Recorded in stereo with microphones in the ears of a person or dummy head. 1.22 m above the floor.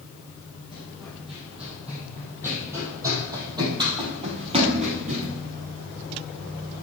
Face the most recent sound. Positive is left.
turn(degrees=-40)  # may be behind; listen again after turning